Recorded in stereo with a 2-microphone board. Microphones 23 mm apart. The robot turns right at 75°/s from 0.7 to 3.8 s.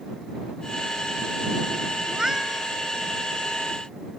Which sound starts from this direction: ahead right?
A cat meowing, at 2.1 s.